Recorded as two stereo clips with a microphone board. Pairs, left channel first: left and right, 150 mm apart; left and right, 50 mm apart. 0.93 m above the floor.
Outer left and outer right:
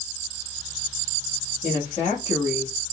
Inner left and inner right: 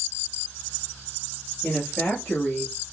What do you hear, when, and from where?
1.6 s a woman speaking: 40° left (ahead or behind), 1.9 m